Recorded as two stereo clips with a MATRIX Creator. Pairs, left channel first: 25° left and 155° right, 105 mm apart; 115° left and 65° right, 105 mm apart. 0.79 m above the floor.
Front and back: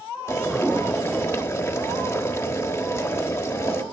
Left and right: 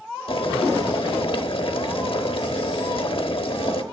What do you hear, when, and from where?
0.3 s boiling: 90° left, 1.1 m